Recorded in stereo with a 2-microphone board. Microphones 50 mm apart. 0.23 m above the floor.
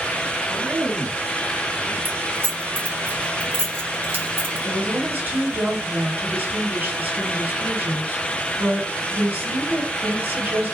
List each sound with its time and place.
0.4 s a man speaking: 5° right (ahead or behind), 2.0 m; by 1.9 s 50° right (ahead or behind), 2 m
2.0 s keys jangling: 45° right (ahead or behind), 1.4 m
4.6 s a woman speaking: 40° right (ahead or behind), 3 m